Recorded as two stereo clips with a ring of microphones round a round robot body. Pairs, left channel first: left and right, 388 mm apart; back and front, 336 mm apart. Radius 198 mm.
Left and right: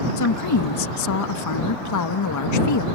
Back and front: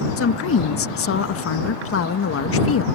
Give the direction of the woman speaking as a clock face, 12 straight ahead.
8 o'clock.